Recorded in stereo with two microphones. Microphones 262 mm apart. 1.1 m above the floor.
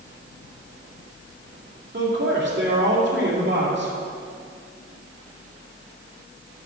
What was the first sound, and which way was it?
A man speaking, 45° right (ahead or behind).